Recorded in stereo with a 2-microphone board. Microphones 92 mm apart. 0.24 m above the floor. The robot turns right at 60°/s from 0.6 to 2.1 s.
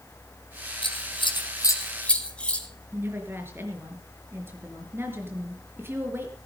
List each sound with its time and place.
0.8 s scissors: 70° left (ahead or behind), 2 m; by 2.7 s 10° left (ahead or behind), 2 m
2.9 s a woman speaking: 25° right (ahead or behind), 4 m